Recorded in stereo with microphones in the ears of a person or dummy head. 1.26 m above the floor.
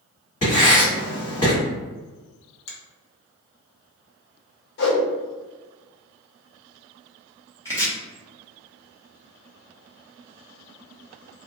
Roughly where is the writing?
Left.